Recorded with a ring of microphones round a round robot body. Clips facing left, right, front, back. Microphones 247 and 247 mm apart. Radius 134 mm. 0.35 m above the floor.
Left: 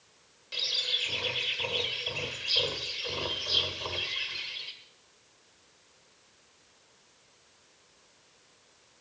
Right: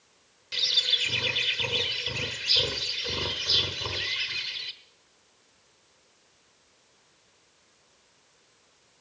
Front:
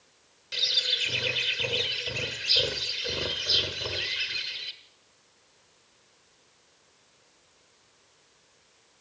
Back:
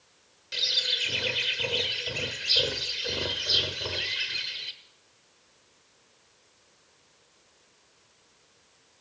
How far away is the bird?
About 1.2 m.